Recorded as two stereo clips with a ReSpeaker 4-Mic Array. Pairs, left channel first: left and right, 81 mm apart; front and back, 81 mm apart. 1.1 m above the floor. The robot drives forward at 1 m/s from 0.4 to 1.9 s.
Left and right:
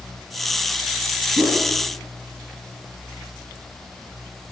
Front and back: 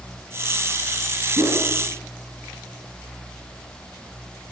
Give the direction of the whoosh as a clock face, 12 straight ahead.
5 o'clock.